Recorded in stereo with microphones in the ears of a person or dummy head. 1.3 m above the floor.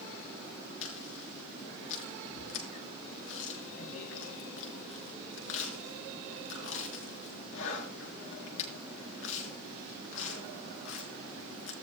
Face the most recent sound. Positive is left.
turn(degrees=75)  # may be behind; listen again after turning